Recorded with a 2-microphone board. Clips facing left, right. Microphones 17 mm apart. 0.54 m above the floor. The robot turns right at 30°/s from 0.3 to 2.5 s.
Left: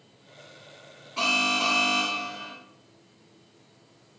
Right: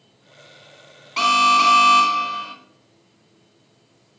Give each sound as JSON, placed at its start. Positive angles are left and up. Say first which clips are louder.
{"t": 1.2, "sound": "an alarm", "louder": "right 9 dB", "azimuth_deg": -115, "distance_m": 3.0}